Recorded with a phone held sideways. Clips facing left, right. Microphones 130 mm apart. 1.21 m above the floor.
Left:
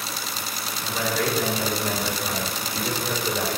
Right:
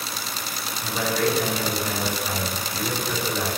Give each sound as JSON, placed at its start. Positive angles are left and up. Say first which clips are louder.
{"t": 0.8, "sound": "a man speaking", "louder": "right 2 dB", "side_deg": -5, "distance_m": 3.5}